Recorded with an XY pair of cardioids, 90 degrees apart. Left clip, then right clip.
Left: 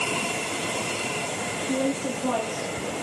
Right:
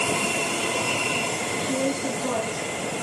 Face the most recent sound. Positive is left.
turn(degrees=20)